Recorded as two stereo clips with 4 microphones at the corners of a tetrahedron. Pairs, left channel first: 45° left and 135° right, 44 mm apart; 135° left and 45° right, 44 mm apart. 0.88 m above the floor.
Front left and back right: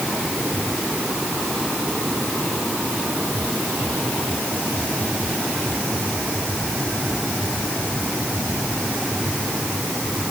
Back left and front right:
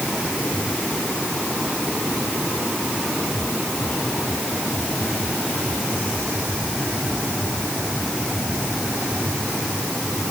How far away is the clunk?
I don't hear a clunk.